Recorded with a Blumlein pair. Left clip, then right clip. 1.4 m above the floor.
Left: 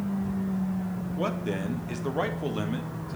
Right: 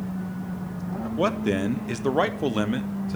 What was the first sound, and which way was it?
A man speaking, 70° right.